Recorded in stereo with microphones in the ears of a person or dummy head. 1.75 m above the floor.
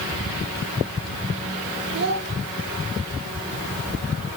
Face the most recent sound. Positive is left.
turn(degrees=-60)  # may be behind; listen again after turning